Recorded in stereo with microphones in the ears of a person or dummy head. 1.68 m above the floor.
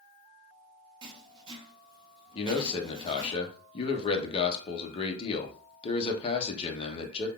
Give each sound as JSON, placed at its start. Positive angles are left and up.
{"t": 1.0, "sound": "writing", "side_deg": -25, "distance_m": 1.1}
{"t": 2.4, "sound": "a man speaking", "side_deg": 30, "distance_m": 0.9}